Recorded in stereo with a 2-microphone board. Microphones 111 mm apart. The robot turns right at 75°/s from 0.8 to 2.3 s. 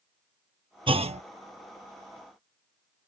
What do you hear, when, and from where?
0.9 s a clunk: 50° right (ahead or behind); by 1.2 s 75° right (ahead or behind)